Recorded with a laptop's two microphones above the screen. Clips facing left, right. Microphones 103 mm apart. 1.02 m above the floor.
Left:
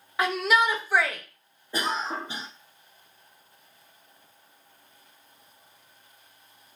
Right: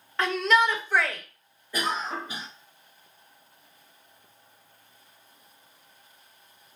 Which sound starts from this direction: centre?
A shout, at 0.2 s.